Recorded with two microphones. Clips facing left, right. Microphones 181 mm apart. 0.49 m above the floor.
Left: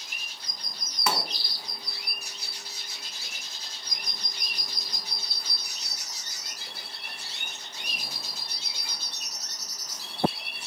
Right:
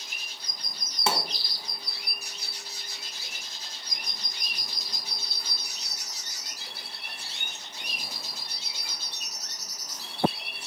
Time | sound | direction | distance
1.1 | a pop | 25° right (ahead or behind) | 0.7 m